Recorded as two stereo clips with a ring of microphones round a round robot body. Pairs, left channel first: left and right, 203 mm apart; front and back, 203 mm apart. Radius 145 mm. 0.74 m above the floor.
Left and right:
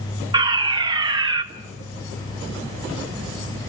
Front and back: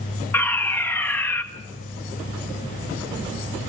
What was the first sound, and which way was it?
A fire alarm, 65° right.